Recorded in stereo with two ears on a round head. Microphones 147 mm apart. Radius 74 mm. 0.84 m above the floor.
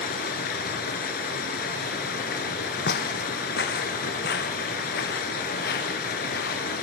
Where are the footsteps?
60° left (ahead or behind), 1.7 m; by 6.7 s 65° left (ahead or behind), 4.5 m.